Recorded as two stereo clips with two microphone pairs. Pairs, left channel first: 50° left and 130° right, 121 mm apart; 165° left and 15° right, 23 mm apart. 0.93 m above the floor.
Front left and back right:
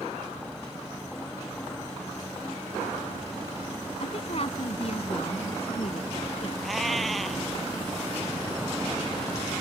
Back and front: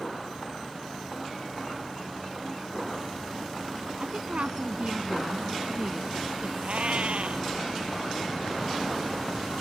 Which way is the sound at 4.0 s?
15° left.